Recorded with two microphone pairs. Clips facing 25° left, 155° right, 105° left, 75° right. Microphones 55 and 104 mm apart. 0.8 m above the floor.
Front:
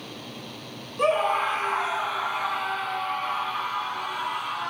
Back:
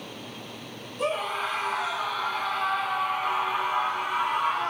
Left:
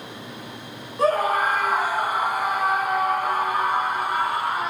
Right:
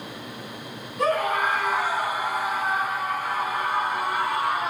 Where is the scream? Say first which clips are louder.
Front 6 dB, left 3 dB; 55° left, 1.6 m; by 4.7 s 150° left, 2 m.